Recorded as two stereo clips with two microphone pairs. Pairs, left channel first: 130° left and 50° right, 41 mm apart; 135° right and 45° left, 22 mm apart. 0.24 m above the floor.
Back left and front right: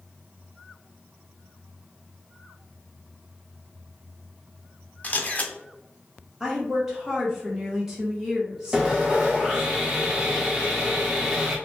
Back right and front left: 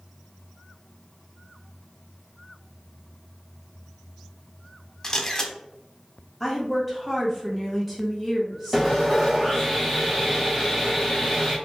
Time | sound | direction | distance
5.0 | a camera shutter | 165° left | 0.8 m
6.4 | a woman speaking | 15° right | 1.5 m
8.7 | sawing | straight ahead | 1.3 m